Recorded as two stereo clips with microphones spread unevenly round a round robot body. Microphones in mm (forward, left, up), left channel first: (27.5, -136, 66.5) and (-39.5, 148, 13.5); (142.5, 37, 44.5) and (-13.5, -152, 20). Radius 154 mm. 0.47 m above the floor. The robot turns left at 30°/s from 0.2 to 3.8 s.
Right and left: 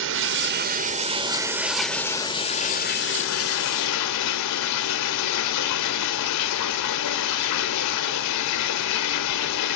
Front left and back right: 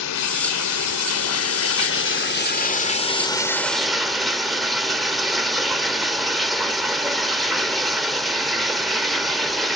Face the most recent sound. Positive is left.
turn(degrees=-40)